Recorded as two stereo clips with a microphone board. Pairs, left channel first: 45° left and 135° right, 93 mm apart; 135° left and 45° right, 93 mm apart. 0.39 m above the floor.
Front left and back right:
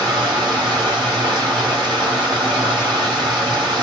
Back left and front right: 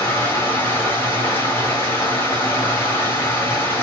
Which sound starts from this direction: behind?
Running water, at 0.0 s.